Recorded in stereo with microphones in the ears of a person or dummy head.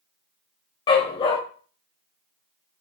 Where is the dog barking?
30° left (ahead or behind), 2.5 m.